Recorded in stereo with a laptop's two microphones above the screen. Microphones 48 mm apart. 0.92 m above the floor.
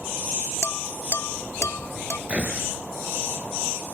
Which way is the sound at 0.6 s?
75° left (ahead or behind).